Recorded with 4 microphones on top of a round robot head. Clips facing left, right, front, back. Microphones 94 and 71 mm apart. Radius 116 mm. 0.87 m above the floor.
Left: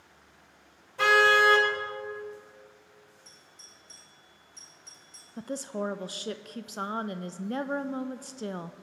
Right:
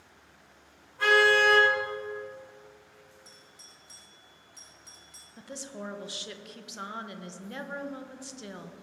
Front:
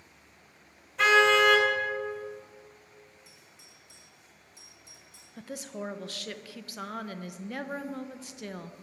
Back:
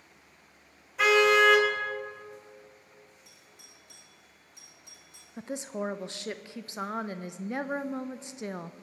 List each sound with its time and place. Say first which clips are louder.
1.0 s a car horn: left 1 dB, even; 95° left, 3 m
3.2 s a doorbell: right 1 dB, even; 170° right, 2.5 m
5.4 s a woman speaking: left 8 dB, back 4 dB; 120° left, 0.6 m